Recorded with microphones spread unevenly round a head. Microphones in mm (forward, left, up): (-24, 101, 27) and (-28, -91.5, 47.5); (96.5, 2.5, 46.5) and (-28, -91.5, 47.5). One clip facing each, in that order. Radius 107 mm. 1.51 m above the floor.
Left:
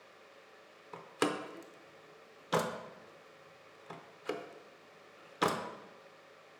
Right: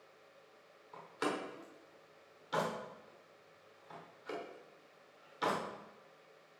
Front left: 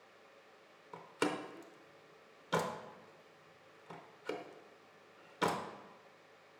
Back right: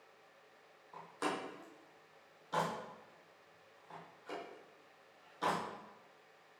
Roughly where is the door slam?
Ahead left.